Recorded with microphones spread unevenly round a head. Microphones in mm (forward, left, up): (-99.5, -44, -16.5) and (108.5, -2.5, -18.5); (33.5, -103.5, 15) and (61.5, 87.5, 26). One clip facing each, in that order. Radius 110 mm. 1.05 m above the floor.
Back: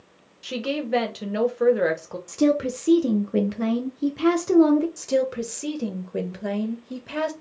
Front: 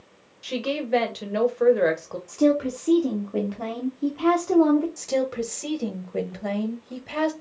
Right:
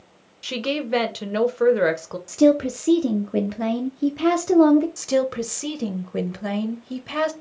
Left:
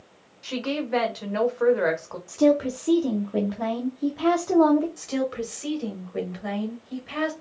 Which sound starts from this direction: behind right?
A woman speaking, at 2.3 s.